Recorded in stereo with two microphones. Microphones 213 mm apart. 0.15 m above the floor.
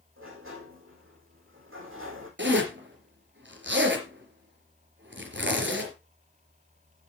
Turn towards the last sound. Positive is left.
turn(degrees=-60)  # may be behind; listen again after turning